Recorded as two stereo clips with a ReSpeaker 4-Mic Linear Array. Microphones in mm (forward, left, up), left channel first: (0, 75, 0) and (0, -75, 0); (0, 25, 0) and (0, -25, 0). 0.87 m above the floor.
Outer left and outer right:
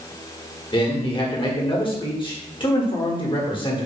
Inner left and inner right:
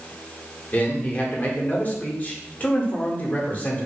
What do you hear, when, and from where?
0.7 s a man speaking: 35° left (ahead or behind), 1.1 m